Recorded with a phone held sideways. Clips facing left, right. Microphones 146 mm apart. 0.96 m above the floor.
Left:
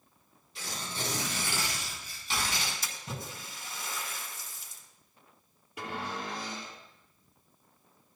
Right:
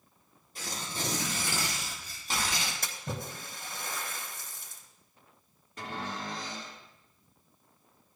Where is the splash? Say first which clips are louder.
Right 3 dB; 60° right (ahead or behind), 3.5 m.